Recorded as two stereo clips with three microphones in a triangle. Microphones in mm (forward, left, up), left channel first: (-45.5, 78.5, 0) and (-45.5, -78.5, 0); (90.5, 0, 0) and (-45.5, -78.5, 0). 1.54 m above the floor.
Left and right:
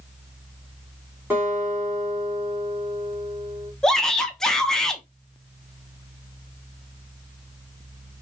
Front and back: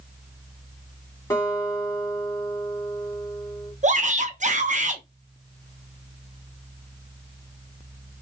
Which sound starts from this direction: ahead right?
A guitar, at 1.3 s.